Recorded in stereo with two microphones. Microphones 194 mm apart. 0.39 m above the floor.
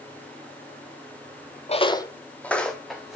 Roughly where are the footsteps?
Left.